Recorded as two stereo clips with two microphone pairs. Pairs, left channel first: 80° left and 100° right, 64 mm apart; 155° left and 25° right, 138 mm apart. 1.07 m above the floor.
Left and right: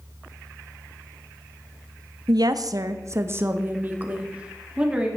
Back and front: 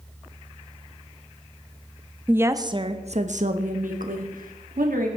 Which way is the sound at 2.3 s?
100° right.